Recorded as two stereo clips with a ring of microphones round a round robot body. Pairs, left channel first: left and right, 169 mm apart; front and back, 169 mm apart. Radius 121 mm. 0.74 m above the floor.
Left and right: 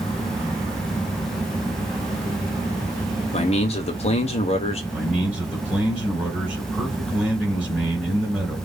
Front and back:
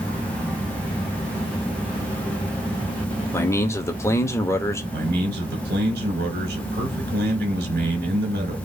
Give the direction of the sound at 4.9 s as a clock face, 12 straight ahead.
6 o'clock.